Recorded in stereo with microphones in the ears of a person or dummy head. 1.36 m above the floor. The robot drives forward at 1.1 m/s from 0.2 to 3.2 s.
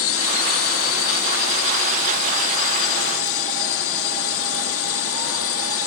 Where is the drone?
70° left (ahead or behind).